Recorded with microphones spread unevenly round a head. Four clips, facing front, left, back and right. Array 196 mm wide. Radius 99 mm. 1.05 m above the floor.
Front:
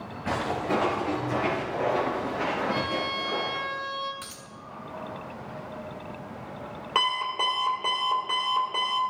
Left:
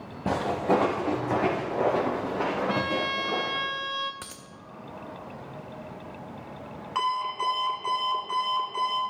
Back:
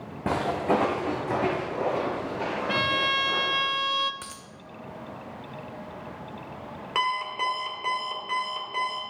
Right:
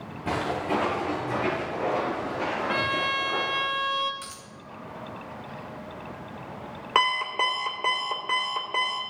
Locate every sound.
0.3 s footsteps: 140° left, 3 m; by 3.7 s 80° left, 4 m
2.7 s a violin: 155° right, 0.9 m
4.2 s a dropped coin: 120° left, 0.8 m
7.0 s an alarm clock: 80° right, 2 m